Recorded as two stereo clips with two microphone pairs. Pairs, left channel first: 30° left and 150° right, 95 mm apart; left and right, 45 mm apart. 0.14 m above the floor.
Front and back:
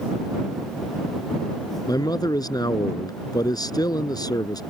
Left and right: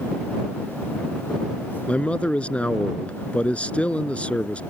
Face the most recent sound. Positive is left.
turn(degrees=40)